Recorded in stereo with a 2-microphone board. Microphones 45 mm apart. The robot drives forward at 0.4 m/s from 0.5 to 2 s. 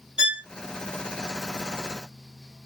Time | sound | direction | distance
0.2 | a violin | 25° right (ahead or behind) | 0.7 m